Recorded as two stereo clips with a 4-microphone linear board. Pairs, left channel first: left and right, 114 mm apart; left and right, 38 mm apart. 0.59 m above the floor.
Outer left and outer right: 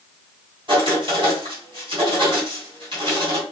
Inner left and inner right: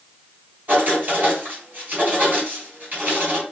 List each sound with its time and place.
0.7 s writing: 50° right (ahead or behind), 3 m